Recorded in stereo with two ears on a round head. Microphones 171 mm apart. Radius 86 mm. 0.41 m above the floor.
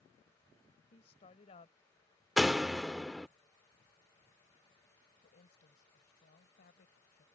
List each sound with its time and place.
0.9 s a woman speaking: 35° left (ahead or behind)
2.4 s a door slam: centre (ahead or behind)
5.2 s a woman speaking: 55° left (ahead or behind)